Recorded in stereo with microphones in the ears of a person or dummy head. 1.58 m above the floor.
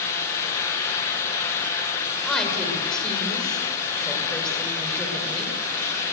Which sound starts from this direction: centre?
A woman speaking, at 2.2 s.